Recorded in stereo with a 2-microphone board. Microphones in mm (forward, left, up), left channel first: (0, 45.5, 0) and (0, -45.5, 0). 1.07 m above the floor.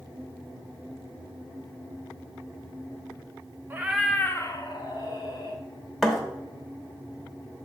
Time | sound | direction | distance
3.7 | a cat meowing | 20° right (ahead or behind) | 0.7 m
6.0 | a thud | centre (ahead or behind) | 0.9 m